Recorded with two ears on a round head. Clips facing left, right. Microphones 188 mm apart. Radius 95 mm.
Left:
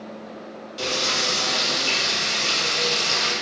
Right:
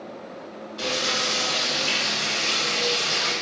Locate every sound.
0.8 s frying: 55° left (ahead or behind), 1.9 m